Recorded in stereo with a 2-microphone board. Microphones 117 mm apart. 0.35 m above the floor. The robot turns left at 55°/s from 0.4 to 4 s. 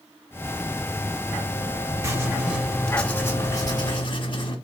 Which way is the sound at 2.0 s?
140° right.